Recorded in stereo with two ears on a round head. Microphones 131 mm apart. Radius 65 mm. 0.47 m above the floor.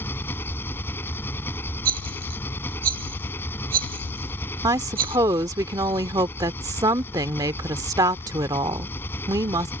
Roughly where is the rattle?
Right.